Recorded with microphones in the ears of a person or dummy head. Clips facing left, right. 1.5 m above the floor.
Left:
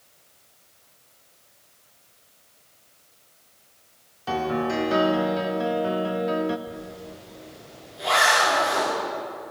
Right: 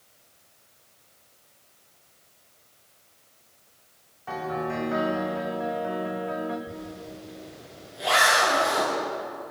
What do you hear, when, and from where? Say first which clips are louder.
4.3 s a piano: left 5 dB; 50° left (ahead or behind), 1.4 m
6.7 s a zipper: left 1 dB; centre (ahead or behind), 8.5 m